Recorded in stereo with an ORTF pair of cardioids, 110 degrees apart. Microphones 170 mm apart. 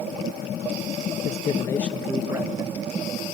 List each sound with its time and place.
1.2 s a man speaking: 50° left, 0.7 m; by 2.8 s 25° right, 1.3 m